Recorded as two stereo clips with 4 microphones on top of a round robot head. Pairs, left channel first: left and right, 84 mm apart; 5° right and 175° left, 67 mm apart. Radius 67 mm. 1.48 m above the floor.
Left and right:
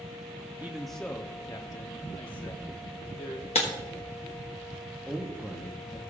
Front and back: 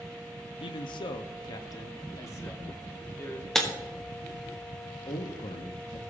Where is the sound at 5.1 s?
Straight ahead, 0.9 m.